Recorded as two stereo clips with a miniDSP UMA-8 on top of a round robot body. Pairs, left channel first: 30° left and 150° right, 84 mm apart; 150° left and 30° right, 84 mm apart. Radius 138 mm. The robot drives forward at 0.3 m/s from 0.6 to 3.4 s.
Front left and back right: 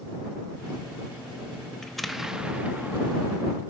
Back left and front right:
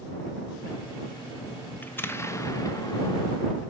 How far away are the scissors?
I don't hear scissors.